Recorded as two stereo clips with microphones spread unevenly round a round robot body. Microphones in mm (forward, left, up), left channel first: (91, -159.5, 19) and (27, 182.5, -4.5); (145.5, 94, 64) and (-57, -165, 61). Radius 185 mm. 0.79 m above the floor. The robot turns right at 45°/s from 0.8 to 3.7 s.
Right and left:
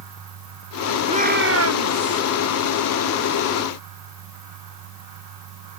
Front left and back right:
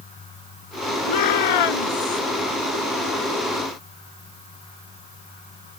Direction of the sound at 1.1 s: 25° left.